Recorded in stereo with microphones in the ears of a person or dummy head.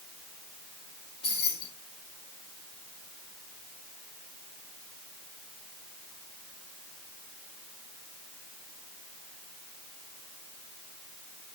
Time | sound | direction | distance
1.2 | keys jangling | 35° left (ahead or behind) | 2.5 m